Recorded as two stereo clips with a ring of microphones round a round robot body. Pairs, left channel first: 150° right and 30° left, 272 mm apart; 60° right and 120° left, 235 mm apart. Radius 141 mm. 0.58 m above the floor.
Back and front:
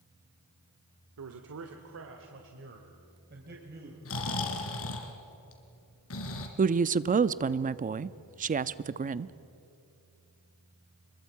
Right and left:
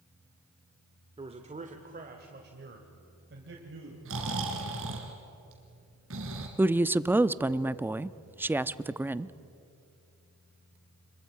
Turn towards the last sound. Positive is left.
turn(degrees=45)